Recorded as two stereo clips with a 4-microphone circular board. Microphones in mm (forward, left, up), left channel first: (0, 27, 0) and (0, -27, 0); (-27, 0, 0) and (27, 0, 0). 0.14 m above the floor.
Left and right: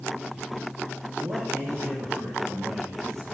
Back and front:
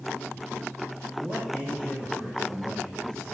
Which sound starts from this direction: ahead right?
A man speaking, at 1.2 s.